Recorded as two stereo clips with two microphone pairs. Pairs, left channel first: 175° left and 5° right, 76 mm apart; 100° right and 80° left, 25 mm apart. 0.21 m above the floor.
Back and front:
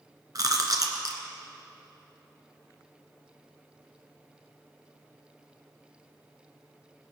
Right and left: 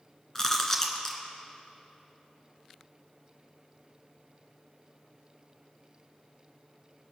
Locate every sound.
0.3 s chewing: 35° right, 1.5 m